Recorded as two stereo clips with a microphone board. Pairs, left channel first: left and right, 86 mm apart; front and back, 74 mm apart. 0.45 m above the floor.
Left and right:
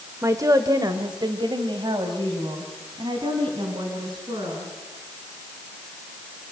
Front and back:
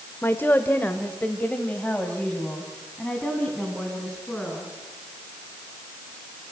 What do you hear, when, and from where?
0.2 s a woman speaking: 50° right, 1.1 m; by 4.7 s 80° right, 4.5 m